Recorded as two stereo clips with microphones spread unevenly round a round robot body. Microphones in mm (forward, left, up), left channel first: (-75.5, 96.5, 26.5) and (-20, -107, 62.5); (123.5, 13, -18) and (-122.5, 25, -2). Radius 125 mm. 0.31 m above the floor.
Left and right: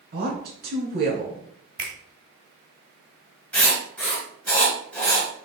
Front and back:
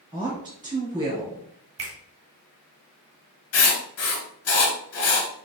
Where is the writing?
20° left, 1.3 m.